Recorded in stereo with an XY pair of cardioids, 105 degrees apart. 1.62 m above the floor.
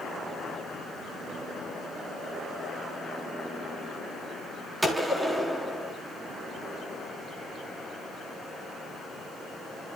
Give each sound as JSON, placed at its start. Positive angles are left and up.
{"t": 4.8, "sound": "a gunshot", "azimuth_deg": -20, "distance_m": 4.0}